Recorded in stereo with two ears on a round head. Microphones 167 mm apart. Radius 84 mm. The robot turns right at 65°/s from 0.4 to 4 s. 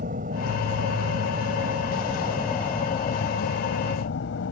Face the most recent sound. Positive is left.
turn(degrees=70)  # may be behind; listen again after turning